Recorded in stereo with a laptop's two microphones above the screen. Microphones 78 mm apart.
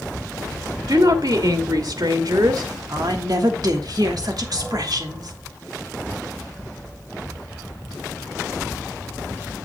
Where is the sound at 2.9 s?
60° right (ahead or behind), 1.5 m.